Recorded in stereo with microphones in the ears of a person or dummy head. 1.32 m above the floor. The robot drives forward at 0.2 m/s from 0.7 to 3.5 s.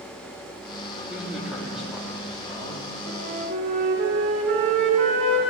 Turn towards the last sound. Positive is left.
turn(degrees=-60)  # may be behind; listen again after turning